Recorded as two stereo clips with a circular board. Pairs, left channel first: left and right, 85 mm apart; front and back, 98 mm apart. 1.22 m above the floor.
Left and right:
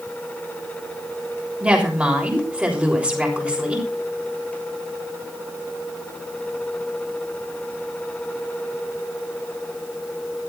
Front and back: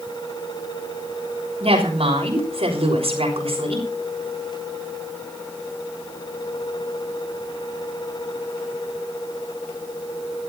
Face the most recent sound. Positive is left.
turn(degrees=-165)